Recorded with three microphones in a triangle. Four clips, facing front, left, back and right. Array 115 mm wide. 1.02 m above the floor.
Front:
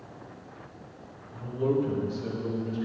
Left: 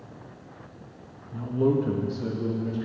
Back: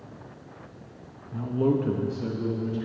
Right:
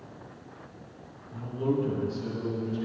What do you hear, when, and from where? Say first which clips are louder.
1.3 s a man speaking: left 5 dB, back 3 dB; 150° left, 1.2 m; by 2.9 s 120° left, 2.5 m